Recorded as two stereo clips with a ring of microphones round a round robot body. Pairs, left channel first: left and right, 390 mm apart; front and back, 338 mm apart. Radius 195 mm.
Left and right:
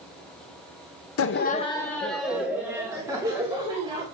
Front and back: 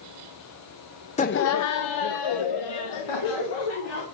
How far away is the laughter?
About 0.5 m.